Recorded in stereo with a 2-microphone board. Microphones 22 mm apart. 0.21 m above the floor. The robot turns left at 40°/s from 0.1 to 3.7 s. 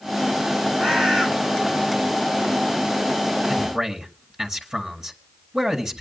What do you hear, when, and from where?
0.8 s a bird: 55° right (ahead or behind), 3 m; by 1.3 s 35° right (ahead or behind), 3 m
3.5 s a man speaking: 20° right (ahead or behind), 2 m; by 6.0 s 25° right (ahead or behind), 2 m